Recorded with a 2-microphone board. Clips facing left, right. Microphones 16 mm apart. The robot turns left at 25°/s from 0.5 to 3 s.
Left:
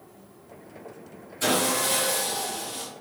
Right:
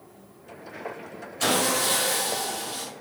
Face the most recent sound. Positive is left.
turn(degrees=-100)